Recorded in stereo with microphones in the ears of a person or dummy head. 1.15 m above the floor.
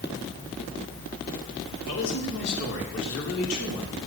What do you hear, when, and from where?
1.8 s a man speaking: 60° left (ahead or behind), 3.5 m; by 4.0 s 80° left, 3.5 m